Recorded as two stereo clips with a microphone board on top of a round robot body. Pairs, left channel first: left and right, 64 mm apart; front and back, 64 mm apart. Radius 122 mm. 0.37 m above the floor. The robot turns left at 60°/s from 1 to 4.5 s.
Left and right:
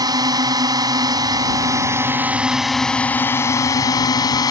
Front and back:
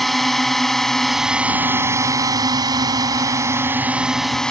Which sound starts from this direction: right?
A drone, at 0.0 s.